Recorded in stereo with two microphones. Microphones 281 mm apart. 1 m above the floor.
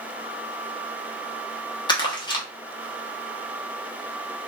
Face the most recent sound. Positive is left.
turn(degrees=15)  # may be behind; listen again after turning